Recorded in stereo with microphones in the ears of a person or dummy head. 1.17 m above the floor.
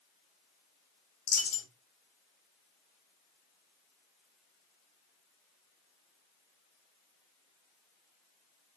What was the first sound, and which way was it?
A dropped coin, 50° left (ahead or behind).